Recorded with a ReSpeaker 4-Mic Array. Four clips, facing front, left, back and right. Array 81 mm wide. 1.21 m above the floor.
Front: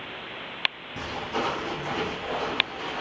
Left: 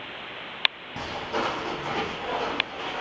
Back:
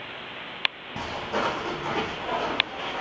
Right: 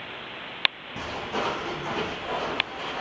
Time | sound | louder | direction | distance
1.0 | footsteps | left 1 dB, back 1 dB | 155° left | 2 m